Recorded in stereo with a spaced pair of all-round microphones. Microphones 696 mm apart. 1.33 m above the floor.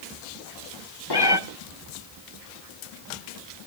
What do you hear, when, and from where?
1.1 s a cat meowing: 35° left (ahead or behind), 1.2 m